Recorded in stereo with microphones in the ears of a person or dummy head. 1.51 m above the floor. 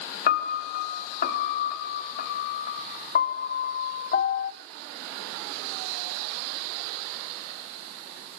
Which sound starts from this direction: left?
A piano, at 0.3 s.